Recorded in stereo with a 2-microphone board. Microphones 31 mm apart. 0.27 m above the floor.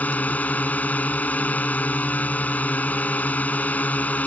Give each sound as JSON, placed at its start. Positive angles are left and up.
{"t": 0.0, "sound": "a drone", "side_deg": 60}